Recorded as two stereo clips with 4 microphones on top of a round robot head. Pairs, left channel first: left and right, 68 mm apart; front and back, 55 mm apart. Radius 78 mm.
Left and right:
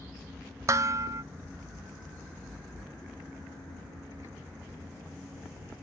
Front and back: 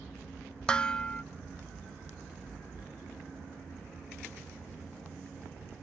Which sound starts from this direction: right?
Dishes clattering, at 0.7 s.